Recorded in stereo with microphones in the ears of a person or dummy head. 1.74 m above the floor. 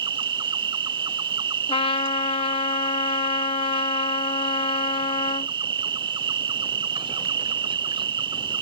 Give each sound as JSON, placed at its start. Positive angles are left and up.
{"t": 0.0, "sound": "an insect", "side_deg": -25}
{"t": 1.7, "sound": "a trumpet", "side_deg": 30}